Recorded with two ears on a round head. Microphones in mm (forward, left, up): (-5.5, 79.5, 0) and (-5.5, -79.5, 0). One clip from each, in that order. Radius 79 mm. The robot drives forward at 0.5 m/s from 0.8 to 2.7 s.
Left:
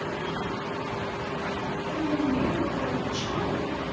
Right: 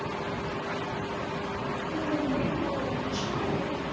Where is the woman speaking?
25° right (ahead or behind), 2 m; by 3.8 s 20° right (ahead or behind), 2.5 m.